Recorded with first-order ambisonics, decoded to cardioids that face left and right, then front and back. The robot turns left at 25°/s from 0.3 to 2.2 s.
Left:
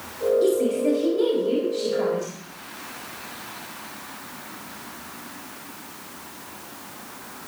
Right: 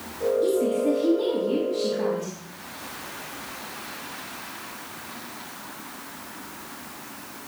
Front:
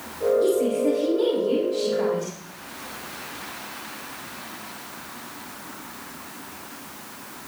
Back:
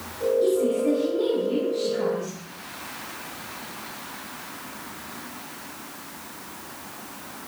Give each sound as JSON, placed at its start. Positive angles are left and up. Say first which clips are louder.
{"t": 0.4, "sound": "a woman speaking", "louder": "left 1 dB, front 1 dB", "azimuth_deg": 85, "distance_m": 3.5}